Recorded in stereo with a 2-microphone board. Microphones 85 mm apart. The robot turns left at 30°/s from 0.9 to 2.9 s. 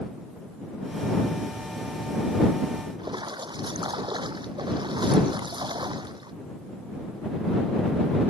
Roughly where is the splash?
Right.